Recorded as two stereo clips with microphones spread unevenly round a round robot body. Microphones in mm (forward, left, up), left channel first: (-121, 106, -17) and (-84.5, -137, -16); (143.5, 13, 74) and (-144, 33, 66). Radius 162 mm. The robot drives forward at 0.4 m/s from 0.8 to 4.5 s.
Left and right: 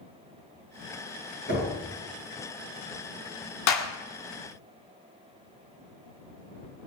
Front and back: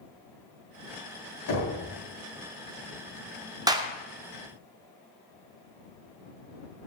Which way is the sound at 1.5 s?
35° left.